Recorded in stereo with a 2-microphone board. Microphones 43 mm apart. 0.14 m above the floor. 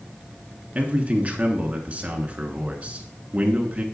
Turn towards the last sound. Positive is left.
turn(degrees=-35)  # may be behind; listen again after turning